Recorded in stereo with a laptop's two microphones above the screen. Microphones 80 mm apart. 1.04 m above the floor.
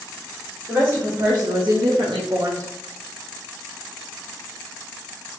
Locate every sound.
0.7 s a woman speaking: 30° right (ahead or behind), 1.9 m; by 2.7 s 40° right (ahead or behind), 1.3 m